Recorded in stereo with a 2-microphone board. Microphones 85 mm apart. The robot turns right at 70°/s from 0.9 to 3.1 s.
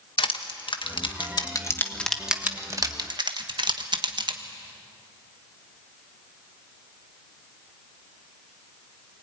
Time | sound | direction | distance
0.2 | crushing | 75° left (ahead or behind) | 1.4 m